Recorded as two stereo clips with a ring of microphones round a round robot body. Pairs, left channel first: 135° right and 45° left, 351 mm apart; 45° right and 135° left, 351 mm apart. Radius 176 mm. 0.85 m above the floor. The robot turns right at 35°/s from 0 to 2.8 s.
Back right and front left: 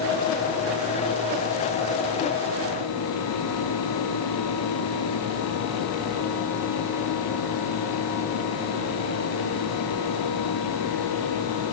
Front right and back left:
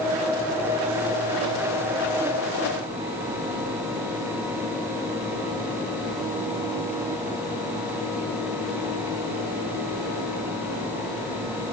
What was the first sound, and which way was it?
Only background noise.